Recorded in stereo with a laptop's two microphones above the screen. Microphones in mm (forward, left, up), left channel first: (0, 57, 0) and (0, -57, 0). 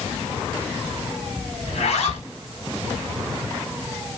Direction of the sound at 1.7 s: 70° left (ahead or behind).